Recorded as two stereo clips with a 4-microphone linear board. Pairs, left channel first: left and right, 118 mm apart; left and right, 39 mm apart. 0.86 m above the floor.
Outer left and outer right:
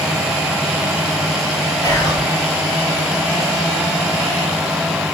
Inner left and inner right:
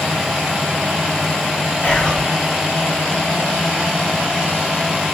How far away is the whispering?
About 0.8 m.